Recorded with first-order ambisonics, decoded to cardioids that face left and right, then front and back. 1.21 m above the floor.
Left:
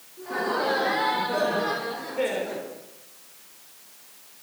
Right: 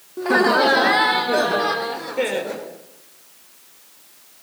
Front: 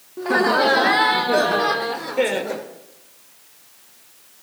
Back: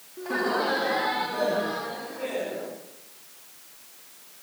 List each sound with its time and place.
0.2 s laughter: 60° right, 2 m; by 2.7 s 15° right, 4.5 m